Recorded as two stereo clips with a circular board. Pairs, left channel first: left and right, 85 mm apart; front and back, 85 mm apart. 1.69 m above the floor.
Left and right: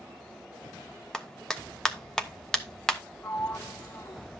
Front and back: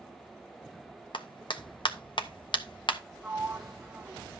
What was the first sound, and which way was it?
A clap, 10° left.